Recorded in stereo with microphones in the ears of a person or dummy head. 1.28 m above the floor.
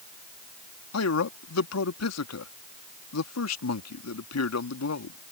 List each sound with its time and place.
0.9 s a man speaking: 80° left